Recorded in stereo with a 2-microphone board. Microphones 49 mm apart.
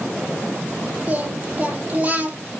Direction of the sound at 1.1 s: 35° right (ahead or behind).